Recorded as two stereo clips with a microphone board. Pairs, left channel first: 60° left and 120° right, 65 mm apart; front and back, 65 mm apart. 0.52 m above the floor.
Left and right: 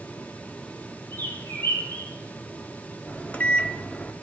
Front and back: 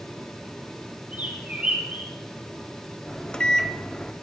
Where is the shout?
I don't hear a shout.